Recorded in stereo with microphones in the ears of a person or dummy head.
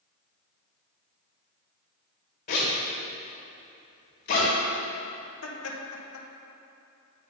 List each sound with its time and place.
2.5 s a zipper: 50° left (ahead or behind), 1.9 m
5.4 s laughter: 80° left, 1.2 m